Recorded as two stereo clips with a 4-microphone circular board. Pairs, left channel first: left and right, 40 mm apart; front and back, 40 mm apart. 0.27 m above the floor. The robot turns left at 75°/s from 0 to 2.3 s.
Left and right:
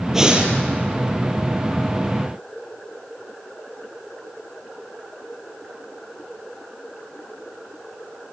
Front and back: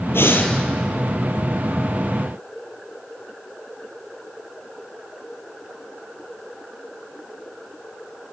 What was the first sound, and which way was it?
Breathing, 10° right.